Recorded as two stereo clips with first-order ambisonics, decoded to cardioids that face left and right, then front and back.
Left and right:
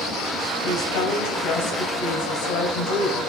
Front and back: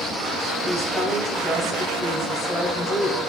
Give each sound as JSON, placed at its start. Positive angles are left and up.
{"t": 0.6, "sound": "a woman speaking", "azimuth_deg": 85, "distance_m": 2.5}